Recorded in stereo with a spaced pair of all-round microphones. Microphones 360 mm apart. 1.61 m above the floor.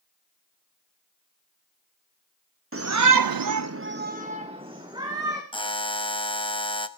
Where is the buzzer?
15° left (ahead or behind), 1.0 m.